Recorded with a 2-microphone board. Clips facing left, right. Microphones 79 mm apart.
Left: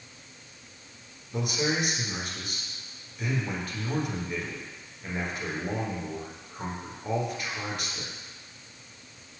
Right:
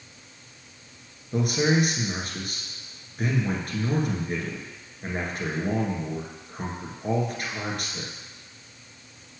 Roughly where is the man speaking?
Right.